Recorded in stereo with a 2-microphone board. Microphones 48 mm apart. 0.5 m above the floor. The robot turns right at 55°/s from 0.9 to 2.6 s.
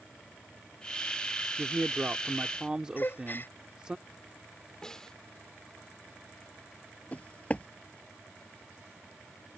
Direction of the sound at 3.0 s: 45° left (ahead or behind).